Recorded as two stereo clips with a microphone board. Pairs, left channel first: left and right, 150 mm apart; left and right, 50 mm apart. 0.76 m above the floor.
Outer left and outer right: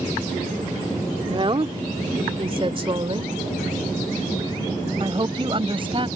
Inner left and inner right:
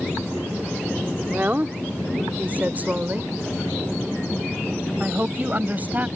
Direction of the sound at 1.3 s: 35° right (ahead or behind).